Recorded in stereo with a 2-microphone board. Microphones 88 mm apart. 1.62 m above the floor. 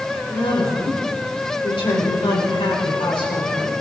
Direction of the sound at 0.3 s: 65° left (ahead or behind).